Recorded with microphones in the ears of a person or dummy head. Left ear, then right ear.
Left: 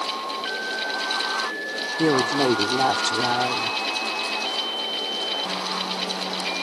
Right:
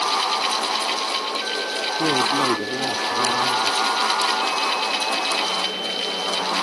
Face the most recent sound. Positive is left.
turn(degrees=55)  # may be behind; listen again after turning